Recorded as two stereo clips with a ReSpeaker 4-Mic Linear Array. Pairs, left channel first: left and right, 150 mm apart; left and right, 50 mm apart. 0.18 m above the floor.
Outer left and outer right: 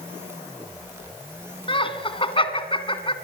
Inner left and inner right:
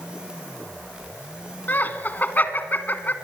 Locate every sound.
1.7 s laughter: 40° left (ahead or behind), 1.7 m